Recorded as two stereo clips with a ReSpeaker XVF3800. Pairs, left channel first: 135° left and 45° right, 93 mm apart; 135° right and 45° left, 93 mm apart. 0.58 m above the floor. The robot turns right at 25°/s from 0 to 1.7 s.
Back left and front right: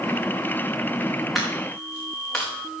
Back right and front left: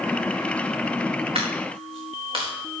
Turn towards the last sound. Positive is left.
turn(degrees=55)